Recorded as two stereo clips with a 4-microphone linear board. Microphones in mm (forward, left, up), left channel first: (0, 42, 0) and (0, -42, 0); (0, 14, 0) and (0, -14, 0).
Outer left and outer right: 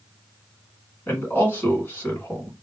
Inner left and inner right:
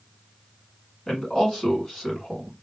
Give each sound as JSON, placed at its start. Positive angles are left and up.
{"t": 1.1, "sound": "a man speaking", "side_deg": 25, "distance_m": 1.7}